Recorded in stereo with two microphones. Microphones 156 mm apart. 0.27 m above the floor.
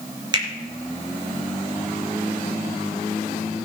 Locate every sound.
0.3 s a finger snap: 30° right (ahead or behind), 3 m